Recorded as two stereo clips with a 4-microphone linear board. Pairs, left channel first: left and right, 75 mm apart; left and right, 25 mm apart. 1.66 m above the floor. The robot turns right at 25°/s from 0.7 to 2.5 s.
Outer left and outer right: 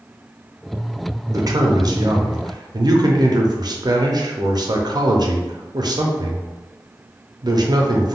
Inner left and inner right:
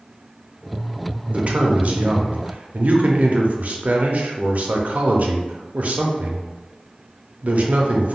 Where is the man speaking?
120° right, 0.5 m; by 8.2 s 90° right, 0.5 m.